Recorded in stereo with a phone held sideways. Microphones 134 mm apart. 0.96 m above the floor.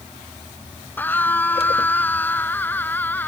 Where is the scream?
15° left (ahead or behind).